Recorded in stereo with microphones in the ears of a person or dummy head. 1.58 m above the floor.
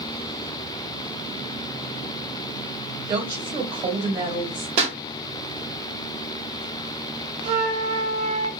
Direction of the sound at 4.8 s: 35° right (ahead or behind).